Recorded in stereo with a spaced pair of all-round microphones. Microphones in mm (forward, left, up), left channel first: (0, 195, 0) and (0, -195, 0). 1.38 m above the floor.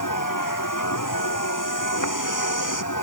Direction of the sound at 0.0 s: 50° left (ahead or behind).